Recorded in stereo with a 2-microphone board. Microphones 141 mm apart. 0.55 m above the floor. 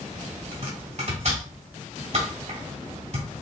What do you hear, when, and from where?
0.5 s chopping: 55° right (ahead or behind), 2 m